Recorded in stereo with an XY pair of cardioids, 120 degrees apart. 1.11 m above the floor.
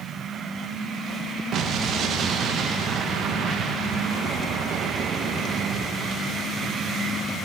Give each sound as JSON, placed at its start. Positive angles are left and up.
{"t": 1.5, "sound": "an explosion", "azimuth_deg": -60, "distance_m": 0.8}